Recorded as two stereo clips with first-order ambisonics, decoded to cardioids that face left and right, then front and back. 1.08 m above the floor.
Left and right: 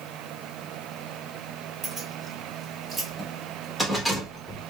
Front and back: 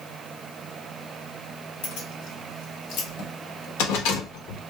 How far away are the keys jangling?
About 2.5 m.